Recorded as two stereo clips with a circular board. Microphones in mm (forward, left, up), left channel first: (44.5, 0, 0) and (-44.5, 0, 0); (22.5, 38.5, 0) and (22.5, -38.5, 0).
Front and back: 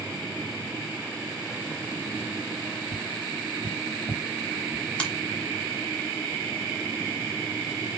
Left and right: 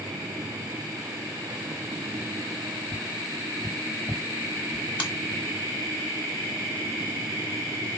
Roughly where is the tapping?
Behind left.